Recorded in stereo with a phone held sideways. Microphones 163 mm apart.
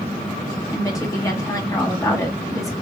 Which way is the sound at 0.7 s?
20° left (ahead or behind).